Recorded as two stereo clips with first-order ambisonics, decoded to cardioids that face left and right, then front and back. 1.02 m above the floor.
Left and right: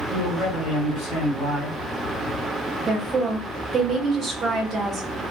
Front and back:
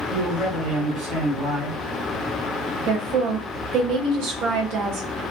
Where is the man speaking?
120° left, 1.9 m.